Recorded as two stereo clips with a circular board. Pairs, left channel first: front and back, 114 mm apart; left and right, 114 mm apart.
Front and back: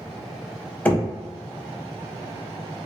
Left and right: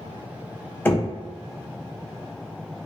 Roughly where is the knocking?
Ahead left.